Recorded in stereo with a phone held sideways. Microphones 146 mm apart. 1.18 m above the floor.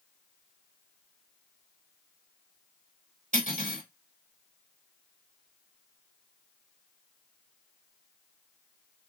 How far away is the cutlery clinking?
About 3.5 m.